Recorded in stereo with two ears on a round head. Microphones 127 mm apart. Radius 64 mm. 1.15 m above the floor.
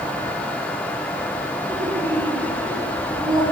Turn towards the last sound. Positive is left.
turn(degrees=-40)  # may be behind; listen again after turning